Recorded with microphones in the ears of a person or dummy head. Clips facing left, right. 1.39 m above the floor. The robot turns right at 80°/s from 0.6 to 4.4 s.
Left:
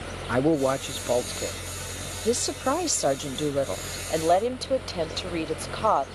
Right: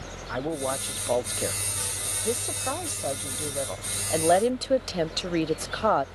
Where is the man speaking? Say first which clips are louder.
Left 8 dB; 130° left; by 1.6 s 150° right.